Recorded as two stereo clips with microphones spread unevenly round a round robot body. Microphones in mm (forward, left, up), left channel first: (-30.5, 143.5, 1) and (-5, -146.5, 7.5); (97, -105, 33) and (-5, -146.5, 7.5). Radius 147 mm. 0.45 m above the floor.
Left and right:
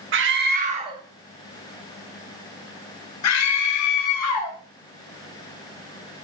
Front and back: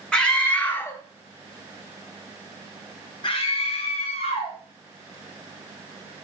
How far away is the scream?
About 1.0 m.